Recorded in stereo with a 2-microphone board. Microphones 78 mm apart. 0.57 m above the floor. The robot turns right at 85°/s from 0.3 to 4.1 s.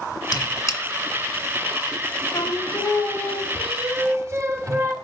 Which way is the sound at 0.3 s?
70° left (ahead or behind).